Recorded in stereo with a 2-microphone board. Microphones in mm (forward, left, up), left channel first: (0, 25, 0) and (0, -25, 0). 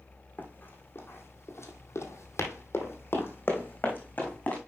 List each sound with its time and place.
0.4 s running footsteps: 35° left (ahead or behind), 3 m; by 4.6 s 30° left (ahead or behind), 4 m